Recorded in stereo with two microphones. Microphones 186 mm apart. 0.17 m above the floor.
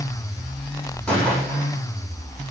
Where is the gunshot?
5° left (ahead or behind), 8.5 m.